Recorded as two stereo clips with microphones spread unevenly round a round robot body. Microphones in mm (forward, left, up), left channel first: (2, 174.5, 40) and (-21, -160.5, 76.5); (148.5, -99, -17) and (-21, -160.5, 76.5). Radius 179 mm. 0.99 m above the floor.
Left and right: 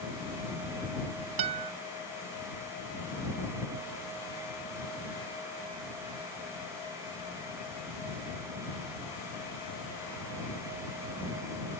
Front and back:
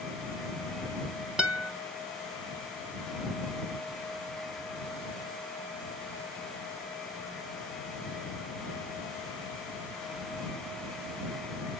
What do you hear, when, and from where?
1.4 s a guitar: 70° right